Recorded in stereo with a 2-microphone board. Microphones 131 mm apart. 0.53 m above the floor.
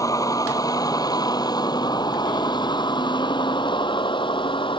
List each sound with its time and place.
0.0 s a vehicle: 25° left (ahead or behind); by 4.8 s 40° left (ahead or behind)